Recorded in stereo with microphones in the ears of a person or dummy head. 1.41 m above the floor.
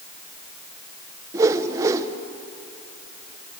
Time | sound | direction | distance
1.3 | a whoosh | 20° right (ahead or behind) | 1.2 m